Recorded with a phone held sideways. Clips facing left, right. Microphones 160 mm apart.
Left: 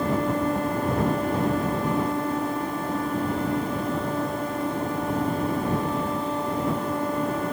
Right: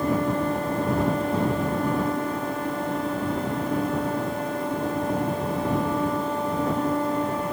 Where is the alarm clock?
No alarm clock in this recording.